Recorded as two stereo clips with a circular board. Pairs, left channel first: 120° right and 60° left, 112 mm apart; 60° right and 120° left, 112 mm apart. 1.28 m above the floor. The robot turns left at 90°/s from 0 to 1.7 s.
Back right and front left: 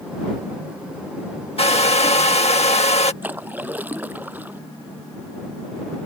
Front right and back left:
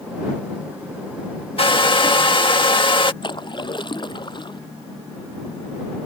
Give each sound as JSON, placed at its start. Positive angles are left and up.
{"t": 1.6, "sound": "a hair dryer", "azimuth_deg": -90}
{"t": 3.2, "sound": "a splash", "azimuth_deg": -15}